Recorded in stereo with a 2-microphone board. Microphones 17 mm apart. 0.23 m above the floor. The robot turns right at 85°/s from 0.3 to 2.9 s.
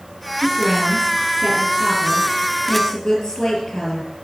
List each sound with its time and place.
0.4 s a woman speaking: 170° right, 5 m; by 4.1 s 40° left, 5 m